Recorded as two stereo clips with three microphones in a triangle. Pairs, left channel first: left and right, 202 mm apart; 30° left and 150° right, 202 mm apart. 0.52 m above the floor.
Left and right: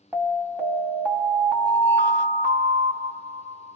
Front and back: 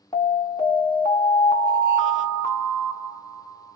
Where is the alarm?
20° right, 2 m.